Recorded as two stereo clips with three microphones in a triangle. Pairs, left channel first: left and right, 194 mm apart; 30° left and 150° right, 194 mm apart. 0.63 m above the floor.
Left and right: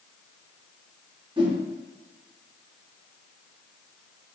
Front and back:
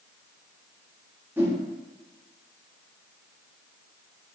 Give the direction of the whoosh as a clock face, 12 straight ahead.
3 o'clock.